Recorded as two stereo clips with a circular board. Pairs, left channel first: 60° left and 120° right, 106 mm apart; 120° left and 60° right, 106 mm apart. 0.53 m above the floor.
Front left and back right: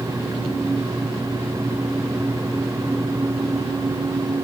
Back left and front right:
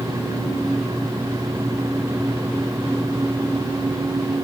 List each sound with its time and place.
Only background noise.